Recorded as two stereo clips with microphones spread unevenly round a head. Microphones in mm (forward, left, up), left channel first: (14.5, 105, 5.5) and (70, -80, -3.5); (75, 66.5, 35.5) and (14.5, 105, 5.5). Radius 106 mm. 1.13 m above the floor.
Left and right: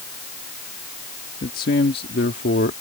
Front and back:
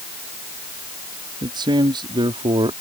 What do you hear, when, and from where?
1.4 s a man speaking: 160° left; by 2.7 s 150° left